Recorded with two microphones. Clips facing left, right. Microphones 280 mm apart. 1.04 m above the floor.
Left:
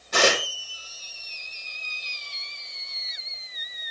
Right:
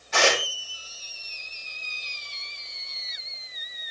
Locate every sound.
0.1 s tearing paper: 45° left (ahead or behind), 3.5 m